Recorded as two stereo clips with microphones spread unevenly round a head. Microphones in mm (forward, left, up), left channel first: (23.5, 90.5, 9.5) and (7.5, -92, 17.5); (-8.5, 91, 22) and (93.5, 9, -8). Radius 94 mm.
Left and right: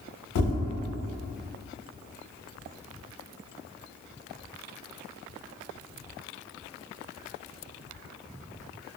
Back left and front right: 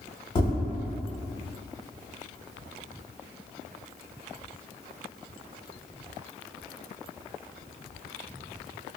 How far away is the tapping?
About 1.1 m.